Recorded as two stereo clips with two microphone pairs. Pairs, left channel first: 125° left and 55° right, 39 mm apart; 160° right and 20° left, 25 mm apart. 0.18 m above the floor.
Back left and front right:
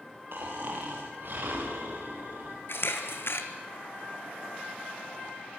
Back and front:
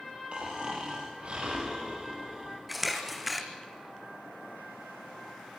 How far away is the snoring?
About 6 m.